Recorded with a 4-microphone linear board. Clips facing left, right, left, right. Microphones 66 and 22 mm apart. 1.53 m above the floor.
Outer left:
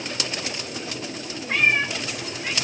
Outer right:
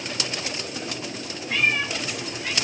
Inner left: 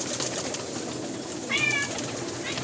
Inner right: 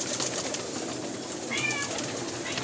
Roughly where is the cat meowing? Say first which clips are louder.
Outer left 2 dB, inner left 5 dB; left.